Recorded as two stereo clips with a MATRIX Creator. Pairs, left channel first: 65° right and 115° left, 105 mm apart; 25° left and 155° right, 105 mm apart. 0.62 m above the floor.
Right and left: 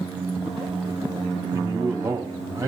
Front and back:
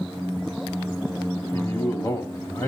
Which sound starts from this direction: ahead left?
A man speaking, at 1.5 s.